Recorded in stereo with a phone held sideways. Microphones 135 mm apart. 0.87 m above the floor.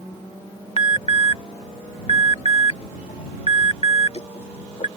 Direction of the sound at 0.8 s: 50° left (ahead or behind).